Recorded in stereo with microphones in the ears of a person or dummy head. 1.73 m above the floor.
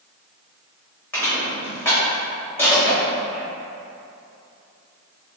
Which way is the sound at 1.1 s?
10° left (ahead or behind).